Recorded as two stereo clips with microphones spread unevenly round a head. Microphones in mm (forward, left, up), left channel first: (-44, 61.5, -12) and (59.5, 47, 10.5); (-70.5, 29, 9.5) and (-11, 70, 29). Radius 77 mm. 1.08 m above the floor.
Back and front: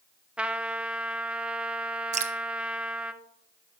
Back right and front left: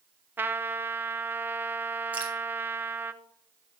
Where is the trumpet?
90° left, 0.7 m.